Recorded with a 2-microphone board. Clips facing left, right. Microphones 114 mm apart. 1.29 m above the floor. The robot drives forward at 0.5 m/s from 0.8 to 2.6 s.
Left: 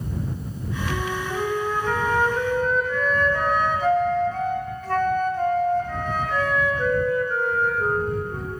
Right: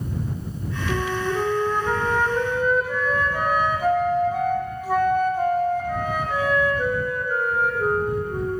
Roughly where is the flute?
Centre.